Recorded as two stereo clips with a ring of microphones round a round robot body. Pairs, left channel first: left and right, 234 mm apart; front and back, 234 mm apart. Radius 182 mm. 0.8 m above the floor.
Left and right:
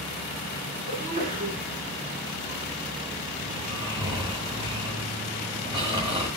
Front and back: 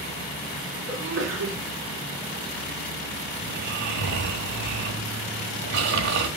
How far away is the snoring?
About 1.5 m.